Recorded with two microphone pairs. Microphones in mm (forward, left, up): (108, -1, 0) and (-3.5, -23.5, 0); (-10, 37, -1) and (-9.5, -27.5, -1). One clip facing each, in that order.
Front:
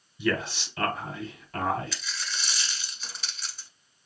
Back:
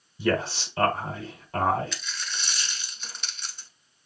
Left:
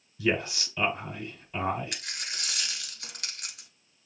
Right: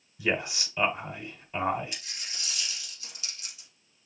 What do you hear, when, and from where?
0.2 s a man speaking: 150° right, 1.2 m
1.9 s a dropped coin: 95° left, 1.1 m